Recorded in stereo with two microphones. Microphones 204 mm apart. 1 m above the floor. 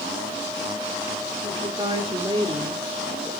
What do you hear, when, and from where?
1.4 s a woman speaking: 30° right (ahead or behind), 3.5 m; by 3.3 s 10° right (ahead or behind), 1.4 m